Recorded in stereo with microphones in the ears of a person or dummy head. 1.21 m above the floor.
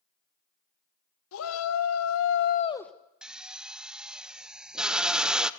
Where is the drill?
5° right (ahead or behind), 0.5 m.